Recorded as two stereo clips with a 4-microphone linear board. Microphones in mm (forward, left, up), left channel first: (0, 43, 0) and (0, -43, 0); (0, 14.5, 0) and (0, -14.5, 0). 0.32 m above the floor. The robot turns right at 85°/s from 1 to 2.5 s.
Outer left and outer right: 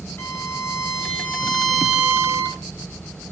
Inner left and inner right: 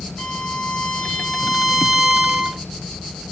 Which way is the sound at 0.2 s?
120° left.